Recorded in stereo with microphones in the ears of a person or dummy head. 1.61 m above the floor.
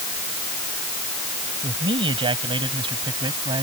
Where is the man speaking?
30° right (ahead or behind).